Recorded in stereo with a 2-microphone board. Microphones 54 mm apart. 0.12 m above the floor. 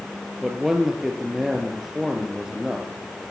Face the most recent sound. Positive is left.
turn(degrees=-5)  # may be behind; listen again after turning